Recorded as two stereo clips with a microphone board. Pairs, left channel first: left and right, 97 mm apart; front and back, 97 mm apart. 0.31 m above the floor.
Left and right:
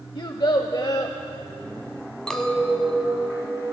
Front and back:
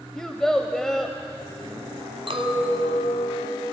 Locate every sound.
0.1 s a child speaking: 85° left, 0.6 m
2.3 s a clink: 170° left, 1.2 m